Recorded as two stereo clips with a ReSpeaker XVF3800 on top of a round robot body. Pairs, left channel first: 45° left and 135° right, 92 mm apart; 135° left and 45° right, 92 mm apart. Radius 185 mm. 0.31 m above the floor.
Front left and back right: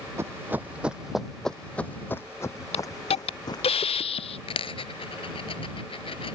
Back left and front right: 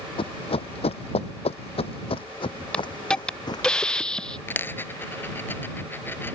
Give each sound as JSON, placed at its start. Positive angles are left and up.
{"t": 0.2, "sound": "running footsteps", "azimuth_deg": 160}
{"t": 2.7, "sound": "a hiss", "azimuth_deg": 55}
{"t": 4.5, "sound": "a dropped coin", "azimuth_deg": 65}